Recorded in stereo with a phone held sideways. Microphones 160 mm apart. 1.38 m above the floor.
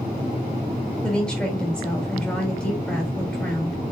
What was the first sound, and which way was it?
A woman speaking, 5° left (ahead or behind).